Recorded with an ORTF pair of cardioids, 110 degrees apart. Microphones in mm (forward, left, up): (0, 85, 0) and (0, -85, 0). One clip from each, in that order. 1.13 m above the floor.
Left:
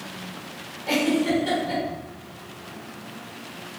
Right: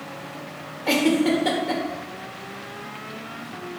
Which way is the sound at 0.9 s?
55° right.